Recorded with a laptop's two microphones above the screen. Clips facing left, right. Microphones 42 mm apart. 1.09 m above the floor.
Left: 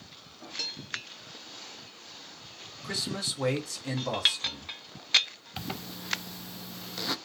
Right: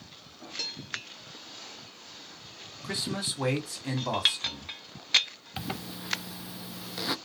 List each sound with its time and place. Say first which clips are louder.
2.8 s a man speaking: right 1 dB; 15° right (ahead or behind), 3 m
5.6 s a zipper: right 2 dB; 10° right (ahead or behind), 0.5 m